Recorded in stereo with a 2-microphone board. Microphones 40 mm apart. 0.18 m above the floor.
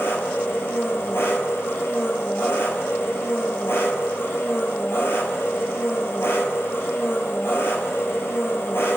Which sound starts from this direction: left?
An engine running, at 0.0 s.